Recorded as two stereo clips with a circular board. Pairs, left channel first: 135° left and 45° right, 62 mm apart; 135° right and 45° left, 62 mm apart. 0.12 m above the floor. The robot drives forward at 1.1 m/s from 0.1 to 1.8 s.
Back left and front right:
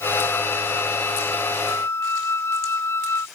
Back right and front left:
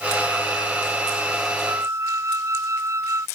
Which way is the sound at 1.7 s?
90° left.